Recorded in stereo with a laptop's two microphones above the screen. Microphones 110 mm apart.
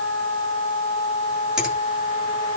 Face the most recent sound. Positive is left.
turn(degrees=-5)  # may be behind; listen again after turning